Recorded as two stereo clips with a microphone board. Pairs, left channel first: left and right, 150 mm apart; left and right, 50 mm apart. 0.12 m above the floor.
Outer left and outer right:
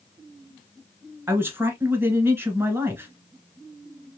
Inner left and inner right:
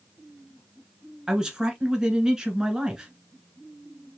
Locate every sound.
1.3 s a man speaking: 15° right (ahead or behind), 1.1 m